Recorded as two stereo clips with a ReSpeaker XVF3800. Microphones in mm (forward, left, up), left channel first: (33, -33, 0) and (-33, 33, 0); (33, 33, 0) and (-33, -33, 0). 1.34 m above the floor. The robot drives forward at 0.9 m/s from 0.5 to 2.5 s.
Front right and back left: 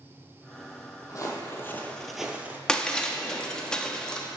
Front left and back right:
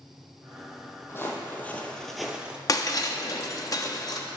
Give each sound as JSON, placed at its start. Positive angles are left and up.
{"t": 1.1, "sound": "footsteps", "azimuth_deg": -10, "distance_m": 2.0}
{"t": 2.7, "sound": "breaking glass", "azimuth_deg": 30, "distance_m": 0.9}